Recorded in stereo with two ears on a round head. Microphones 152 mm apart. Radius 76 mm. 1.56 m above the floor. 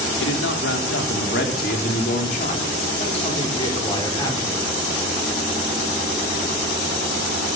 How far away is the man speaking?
About 5.5 m.